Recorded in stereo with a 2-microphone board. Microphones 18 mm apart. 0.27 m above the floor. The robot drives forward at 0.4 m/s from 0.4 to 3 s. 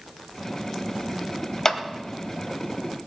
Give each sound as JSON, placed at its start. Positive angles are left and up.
{"t": 1.6, "sound": "a clap", "side_deg": 30, "distance_m": 1.2}